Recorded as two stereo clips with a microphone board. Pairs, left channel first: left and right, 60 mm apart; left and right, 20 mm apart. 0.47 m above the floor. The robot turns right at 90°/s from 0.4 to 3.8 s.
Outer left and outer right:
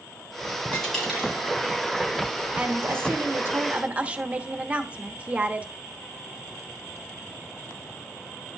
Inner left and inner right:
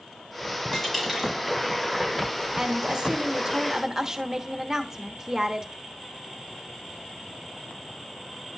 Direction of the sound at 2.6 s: 150° right.